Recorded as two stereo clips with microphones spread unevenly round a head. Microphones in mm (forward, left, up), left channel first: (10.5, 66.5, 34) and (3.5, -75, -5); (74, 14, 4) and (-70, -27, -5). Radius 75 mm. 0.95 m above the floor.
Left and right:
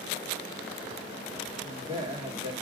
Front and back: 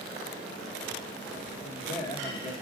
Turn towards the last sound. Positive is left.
turn(degrees=-40)